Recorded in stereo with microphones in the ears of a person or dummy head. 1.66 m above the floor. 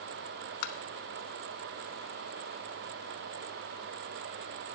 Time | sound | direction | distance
0.6 | tapping | 60° left (ahead or behind) | 0.6 m